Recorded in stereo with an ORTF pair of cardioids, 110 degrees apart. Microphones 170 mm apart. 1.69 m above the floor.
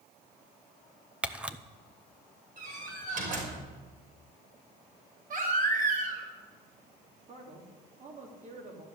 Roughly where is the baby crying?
Ahead right.